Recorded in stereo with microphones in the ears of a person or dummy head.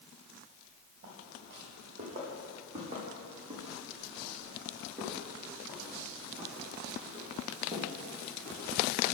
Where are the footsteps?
40° right (ahead or behind), 3.5 m; by 9.1 s centre (ahead or behind), 7 m.